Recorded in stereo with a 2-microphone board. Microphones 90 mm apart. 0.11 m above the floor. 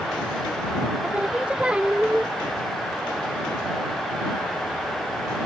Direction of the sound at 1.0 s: 10° right (ahead or behind).